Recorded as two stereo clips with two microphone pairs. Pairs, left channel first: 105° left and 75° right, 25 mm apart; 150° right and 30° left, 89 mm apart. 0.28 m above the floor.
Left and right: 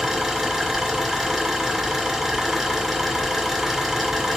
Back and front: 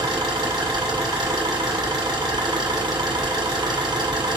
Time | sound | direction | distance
0.0 | an engine running | 5° right | 2 m